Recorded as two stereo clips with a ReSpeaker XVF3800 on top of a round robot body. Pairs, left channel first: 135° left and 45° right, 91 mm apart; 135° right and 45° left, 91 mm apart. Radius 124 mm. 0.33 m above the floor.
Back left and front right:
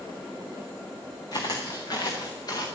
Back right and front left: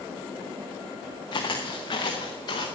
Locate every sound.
1.3 s footsteps: straight behind, 2.5 m